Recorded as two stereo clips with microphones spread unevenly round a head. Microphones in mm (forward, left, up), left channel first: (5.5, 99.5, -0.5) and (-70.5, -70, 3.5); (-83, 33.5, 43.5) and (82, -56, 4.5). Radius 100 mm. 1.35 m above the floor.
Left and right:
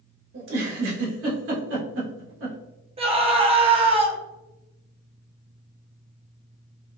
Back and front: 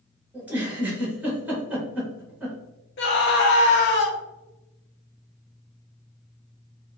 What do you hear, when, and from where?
0.3 s a giggle: 115° right, 1.2 m
3.0 s a scream: 175° right, 0.8 m